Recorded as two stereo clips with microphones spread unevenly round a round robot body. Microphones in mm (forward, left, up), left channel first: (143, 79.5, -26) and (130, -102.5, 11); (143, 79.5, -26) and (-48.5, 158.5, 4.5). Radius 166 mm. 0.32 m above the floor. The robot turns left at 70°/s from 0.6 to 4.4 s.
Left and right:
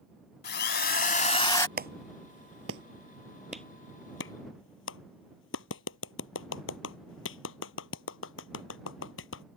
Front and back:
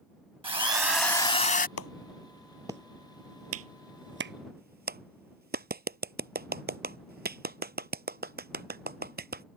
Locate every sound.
0.4 s a drill: 90° left; by 1.7 s 15° left
1.8 s a clap: 60° right; by 9.4 s 115° left